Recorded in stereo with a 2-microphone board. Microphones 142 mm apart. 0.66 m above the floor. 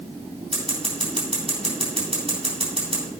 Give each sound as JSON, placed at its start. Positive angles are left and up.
{"t": 0.5, "sound": "scissors", "side_deg": -40, "distance_m": 3.5}